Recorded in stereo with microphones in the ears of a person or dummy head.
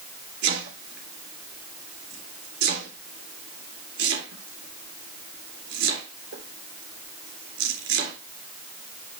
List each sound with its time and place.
0.4 s chopping: 80° right, 3.5 m